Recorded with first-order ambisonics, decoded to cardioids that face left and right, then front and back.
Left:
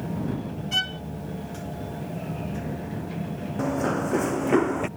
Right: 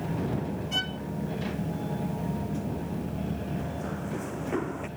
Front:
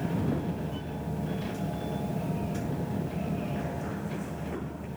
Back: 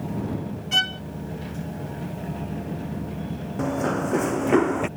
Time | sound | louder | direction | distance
0.7 | a violin | left 5 dB, back 17 dB | 165° left | ?
3.6 | running footsteps | left 10 dB, back 11 dB | 135° left | ?